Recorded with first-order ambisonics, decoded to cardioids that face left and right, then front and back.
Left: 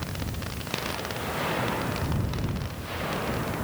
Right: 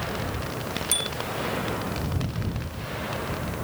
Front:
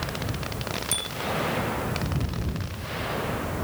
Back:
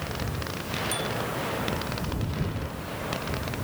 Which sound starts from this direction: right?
A bicycle bell, at 0.9 s.